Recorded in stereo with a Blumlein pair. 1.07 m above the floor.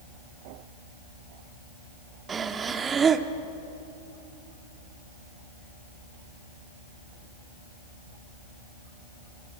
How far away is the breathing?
About 1.2 m.